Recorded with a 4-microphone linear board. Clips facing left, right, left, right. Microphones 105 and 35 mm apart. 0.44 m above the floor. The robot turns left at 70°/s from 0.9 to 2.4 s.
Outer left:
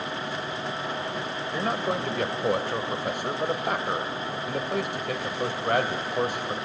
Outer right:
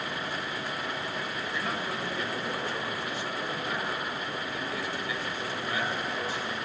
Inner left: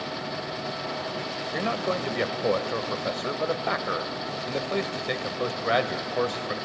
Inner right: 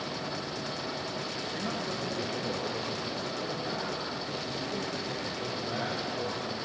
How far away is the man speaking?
About 1.9 m.